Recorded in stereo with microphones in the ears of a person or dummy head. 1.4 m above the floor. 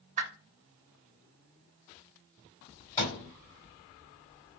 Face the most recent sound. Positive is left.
turn(degrees=15)  # may be behind; listen again after turning